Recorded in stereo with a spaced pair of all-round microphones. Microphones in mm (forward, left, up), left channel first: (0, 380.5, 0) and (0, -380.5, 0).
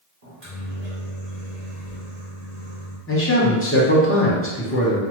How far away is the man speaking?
About 0.8 m.